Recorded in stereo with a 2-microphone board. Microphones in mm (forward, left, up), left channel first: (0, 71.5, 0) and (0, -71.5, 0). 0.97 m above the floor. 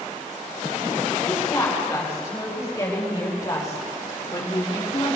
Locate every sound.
1.2 s a woman speaking: 20° left (ahead or behind), 5.5 m; by 5.2 s 30° left (ahead or behind), 1.9 m